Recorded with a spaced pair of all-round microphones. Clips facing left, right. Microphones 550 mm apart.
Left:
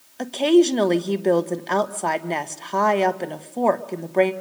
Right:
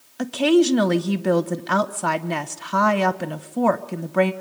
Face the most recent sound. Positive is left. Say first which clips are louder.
# left 1 dB
turn(degrees=-35)  # may be behind; listen again after turning